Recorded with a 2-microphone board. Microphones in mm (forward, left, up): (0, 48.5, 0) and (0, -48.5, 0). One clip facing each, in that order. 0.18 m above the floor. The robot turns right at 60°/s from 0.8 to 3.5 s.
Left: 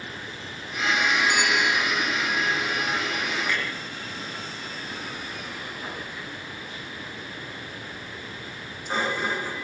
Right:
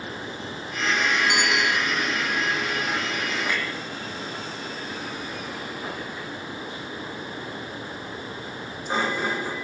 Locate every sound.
1.3 s a bicycle bell: 70° right (ahead or behind), 5.5 m; by 1.8 s 75° right (ahead or behind), 5.5 m
3.5 s a clunk: 15° right (ahead or behind), 7.5 m; by 9.6 s 20° right (ahead or behind), 7.5 m